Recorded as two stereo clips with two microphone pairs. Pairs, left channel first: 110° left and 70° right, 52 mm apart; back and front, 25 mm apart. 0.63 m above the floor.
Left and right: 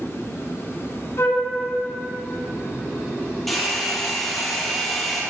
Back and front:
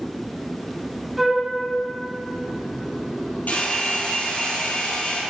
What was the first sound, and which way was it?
A flute, 80° left.